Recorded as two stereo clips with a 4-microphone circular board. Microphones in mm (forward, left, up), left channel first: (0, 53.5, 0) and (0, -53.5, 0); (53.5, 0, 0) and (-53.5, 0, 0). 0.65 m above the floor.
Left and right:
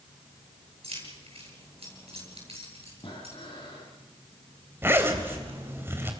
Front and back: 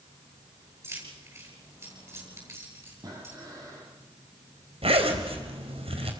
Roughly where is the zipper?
Behind.